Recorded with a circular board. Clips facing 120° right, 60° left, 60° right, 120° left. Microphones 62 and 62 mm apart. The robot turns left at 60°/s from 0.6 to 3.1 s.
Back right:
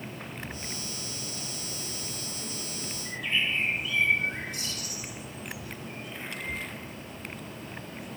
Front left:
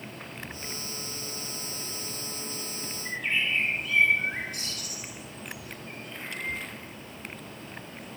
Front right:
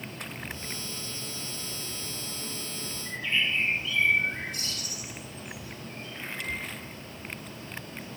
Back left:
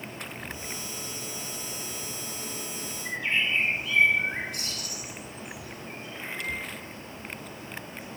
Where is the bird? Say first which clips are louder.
Front left 1 dB, back left 1 dB; 100° left, 4 m.